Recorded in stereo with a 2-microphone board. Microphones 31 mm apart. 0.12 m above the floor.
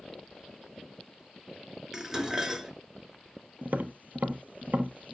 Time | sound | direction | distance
1.9 | dishes clattering | 10° right (ahead or behind) | 1.0 m
3.6 | tapping | 60° right (ahead or behind) | 0.9 m